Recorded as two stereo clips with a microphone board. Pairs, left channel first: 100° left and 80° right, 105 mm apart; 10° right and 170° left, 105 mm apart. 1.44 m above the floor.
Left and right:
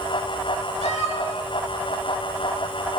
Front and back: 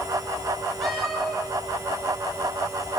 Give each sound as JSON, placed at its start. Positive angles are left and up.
{"t": 0.8, "sound": "a cat meowing", "azimuth_deg": -100, "distance_m": 8.5}